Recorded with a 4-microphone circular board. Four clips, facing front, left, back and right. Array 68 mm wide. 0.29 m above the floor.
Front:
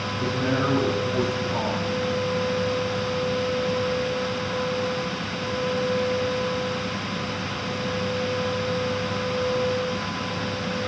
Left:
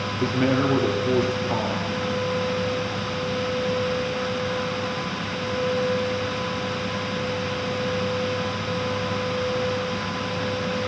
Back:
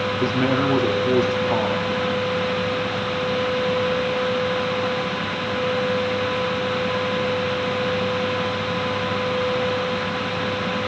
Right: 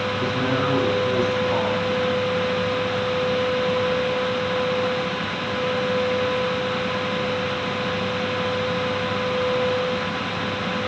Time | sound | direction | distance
0.2 | a man speaking | 135° left | 6.5 m